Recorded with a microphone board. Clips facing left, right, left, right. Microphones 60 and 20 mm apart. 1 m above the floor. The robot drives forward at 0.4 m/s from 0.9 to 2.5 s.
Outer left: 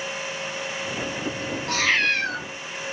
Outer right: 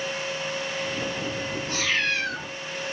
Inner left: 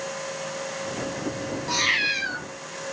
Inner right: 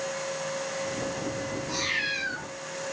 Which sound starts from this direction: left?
A cat meowing, at 1.7 s.